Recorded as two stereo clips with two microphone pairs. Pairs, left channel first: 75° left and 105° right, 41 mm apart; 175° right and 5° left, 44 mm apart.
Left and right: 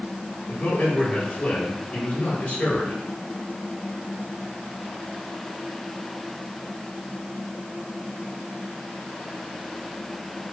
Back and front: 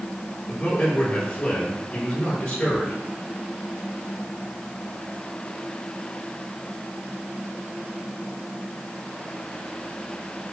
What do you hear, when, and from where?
0.5 s a man speaking: 140° left, 3.5 m